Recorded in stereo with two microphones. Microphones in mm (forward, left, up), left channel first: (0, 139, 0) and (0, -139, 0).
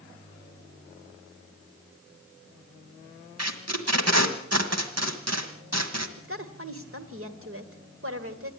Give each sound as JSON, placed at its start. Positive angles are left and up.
{"t": 3.4, "sound": "tape being pulled", "side_deg": -65, "distance_m": 1.7}
{"t": 6.2, "sound": "a woman speaking", "side_deg": -50, "distance_m": 1.9}